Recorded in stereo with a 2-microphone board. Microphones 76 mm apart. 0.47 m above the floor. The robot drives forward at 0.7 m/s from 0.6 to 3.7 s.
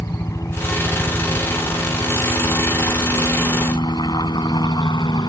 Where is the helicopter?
40° left (ahead or behind); by 5.3 s 65° left (ahead or behind).